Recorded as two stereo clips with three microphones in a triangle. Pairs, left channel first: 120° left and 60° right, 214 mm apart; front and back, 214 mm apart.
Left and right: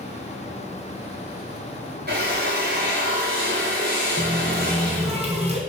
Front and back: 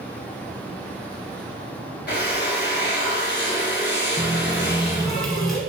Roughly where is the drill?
Ahead right.